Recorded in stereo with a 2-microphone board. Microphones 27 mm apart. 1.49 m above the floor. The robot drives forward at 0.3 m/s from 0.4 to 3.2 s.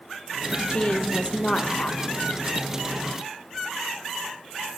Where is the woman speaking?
50° left (ahead or behind), 1.1 m; by 2.2 s 35° left (ahead or behind), 1.5 m.